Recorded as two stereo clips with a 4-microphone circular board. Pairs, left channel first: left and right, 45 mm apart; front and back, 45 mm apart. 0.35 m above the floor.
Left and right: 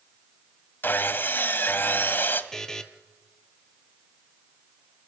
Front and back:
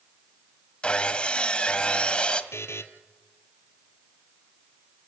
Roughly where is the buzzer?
Ahead.